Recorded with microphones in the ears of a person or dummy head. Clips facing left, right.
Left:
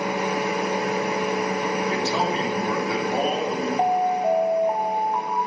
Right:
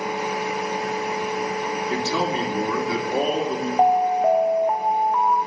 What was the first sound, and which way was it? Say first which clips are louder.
A fan: left 2 dB; 65° left (ahead or behind).